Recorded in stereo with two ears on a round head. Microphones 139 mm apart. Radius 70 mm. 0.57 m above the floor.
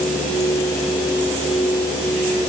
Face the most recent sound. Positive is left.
No sound to turn to.